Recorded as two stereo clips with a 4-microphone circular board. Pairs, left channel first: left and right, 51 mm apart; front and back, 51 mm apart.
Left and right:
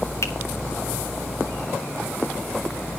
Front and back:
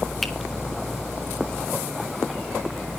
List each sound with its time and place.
0.2 s a finger snap: 85° left, 0.9 m